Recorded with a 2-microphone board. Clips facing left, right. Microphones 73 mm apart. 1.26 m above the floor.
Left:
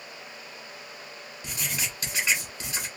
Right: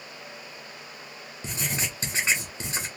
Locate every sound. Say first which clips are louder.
1.4 s writing: right 3 dB; 30° right (ahead or behind), 1.3 m